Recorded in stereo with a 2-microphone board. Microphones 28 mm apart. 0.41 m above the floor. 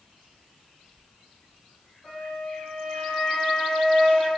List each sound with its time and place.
2.0 s a flute: 20° left (ahead or behind), 1.5 m